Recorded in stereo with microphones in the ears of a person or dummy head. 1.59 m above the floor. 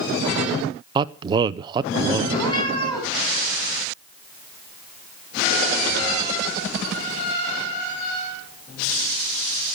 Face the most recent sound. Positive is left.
turn(degrees=25)  # may be behind; listen again after turning